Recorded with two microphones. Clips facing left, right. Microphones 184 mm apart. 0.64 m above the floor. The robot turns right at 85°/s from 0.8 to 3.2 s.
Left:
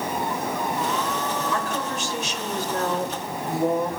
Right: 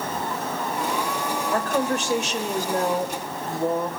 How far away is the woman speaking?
About 2.5 m.